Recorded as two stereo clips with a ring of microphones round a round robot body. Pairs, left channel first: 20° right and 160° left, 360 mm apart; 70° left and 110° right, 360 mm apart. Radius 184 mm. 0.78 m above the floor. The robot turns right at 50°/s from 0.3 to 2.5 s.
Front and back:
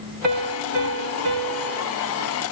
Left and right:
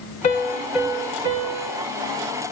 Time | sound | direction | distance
0.2 | a piano | 140° left | 3 m